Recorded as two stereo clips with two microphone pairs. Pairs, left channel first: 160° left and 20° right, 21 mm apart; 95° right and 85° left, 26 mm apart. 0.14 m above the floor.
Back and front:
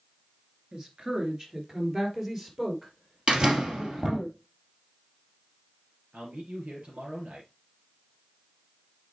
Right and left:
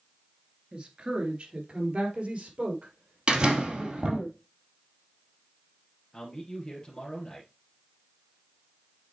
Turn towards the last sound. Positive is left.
turn(degrees=-35)